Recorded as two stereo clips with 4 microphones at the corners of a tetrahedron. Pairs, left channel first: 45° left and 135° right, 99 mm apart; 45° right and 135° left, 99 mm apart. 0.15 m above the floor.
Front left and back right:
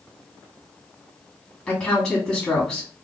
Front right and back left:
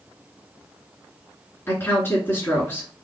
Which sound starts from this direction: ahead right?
A woman speaking, at 1.7 s.